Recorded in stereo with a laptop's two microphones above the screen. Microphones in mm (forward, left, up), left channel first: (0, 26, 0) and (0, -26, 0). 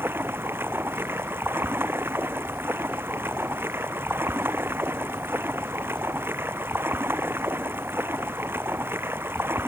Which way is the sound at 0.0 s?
45° right (ahead or behind).